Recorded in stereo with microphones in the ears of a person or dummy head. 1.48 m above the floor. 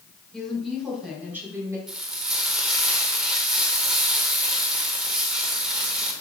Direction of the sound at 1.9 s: 5° right (ahead or behind).